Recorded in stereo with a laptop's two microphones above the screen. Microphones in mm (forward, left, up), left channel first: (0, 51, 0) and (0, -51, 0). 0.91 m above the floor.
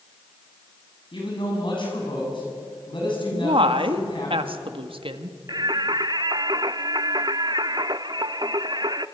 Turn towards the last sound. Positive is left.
turn(degrees=-45)  # may be behind; listen again after turning